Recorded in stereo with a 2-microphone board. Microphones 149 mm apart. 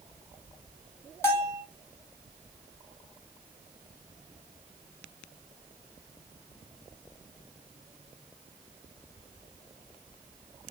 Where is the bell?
20° left (ahead or behind), 1.3 m.